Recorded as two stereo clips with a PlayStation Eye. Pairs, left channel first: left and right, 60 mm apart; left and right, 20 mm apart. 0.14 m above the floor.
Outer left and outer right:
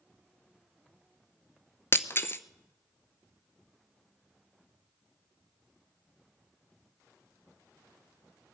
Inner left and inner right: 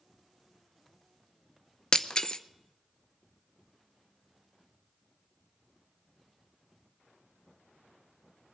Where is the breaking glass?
40° left (ahead or behind), 0.6 m.